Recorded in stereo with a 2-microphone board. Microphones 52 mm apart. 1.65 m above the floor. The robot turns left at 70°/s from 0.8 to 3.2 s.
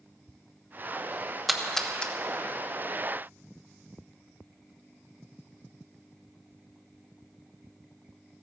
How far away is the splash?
About 1.1 m.